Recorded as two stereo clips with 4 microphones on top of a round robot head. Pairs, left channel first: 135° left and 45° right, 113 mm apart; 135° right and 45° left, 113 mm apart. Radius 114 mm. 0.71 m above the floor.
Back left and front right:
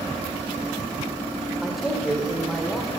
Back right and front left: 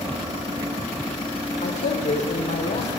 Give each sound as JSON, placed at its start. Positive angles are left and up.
{"t": 1.6, "sound": "a man speaking", "azimuth_deg": -135, "distance_m": 4.0}